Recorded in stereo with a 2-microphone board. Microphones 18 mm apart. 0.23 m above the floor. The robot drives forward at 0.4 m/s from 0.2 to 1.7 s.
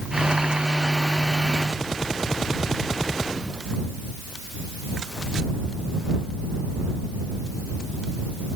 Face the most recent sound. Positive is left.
No sound to turn to.